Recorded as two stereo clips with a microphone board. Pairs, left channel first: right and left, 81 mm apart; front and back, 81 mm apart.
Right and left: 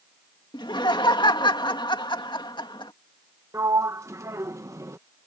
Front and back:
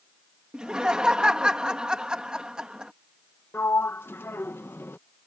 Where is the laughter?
100° right.